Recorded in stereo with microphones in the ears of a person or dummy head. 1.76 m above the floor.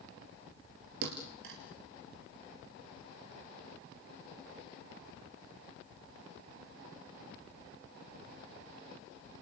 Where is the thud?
55° right (ahead or behind), 3.5 m.